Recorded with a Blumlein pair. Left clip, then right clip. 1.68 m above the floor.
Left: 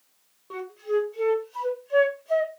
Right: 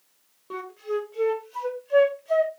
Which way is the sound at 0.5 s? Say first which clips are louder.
Left 3 dB; 10° right.